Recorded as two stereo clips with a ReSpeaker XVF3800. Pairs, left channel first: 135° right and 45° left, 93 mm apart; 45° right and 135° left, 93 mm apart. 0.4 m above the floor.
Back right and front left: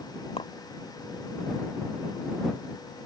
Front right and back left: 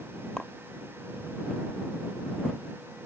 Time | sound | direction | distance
0.4 | a clink | 130° right | ?